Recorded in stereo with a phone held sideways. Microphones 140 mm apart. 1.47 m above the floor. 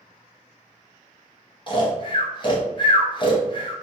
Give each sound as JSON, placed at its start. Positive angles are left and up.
{"t": 1.7, "sound": "snoring", "side_deg": 35, "distance_m": 0.5}